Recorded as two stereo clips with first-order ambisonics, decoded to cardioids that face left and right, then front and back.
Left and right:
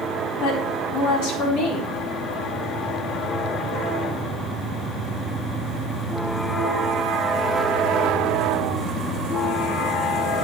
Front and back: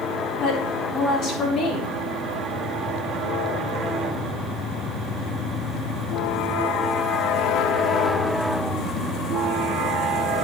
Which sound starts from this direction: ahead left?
A woman speaking, at 0.4 s.